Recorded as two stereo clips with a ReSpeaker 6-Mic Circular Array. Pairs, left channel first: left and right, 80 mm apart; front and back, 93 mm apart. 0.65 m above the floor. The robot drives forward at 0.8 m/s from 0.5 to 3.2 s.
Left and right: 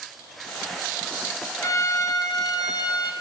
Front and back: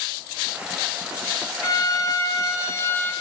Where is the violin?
45° left, 3 m; by 3.1 s 65° left, 2.5 m.